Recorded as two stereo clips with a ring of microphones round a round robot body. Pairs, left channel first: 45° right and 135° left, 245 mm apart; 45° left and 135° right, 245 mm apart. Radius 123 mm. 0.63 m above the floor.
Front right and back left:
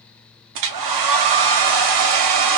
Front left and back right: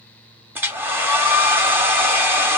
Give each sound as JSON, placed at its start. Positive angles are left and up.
{"t": 0.6, "sound": "a hair dryer", "azimuth_deg": 145, "distance_m": 0.5}